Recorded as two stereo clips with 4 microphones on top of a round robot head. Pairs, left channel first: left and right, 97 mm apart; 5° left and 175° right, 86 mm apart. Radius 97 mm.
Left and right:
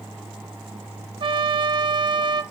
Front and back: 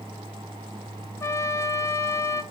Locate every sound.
1.2 s a trumpet: 55° right, 0.5 m